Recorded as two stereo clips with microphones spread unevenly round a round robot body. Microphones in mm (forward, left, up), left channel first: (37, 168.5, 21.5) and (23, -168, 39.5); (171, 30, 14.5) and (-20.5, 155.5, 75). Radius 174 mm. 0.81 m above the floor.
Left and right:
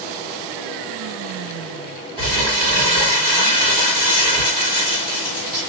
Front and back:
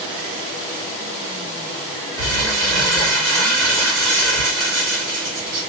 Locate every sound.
2.2 s crumpling: 170° right, 1.6 m